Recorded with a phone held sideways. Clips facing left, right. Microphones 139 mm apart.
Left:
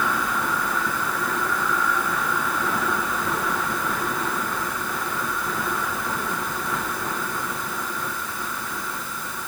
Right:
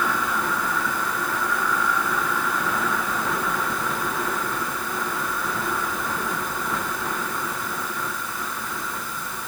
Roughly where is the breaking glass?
No breaking glass in this recording.